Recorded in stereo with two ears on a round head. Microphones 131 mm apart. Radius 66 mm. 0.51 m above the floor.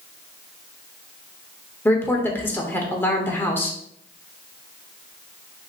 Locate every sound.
1.9 s a woman speaking: 15° left (ahead or behind), 1.2 m